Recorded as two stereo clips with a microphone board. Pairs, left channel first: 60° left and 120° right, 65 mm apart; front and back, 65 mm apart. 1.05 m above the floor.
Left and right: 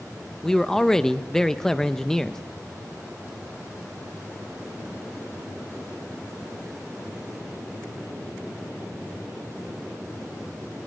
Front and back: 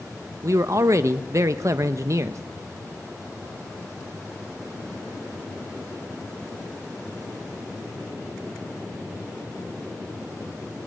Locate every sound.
0.4 s a man speaking: 140° left, 0.5 m